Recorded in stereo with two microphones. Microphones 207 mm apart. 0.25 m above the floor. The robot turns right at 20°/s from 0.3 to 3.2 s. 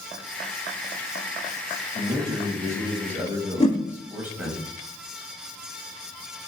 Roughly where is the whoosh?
Left.